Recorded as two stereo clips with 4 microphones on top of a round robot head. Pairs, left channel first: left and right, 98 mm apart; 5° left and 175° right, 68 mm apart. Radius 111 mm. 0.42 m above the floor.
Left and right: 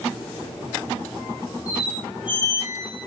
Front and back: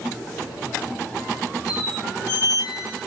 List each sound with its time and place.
1.7 s a squeak: 15° right, 1.3 m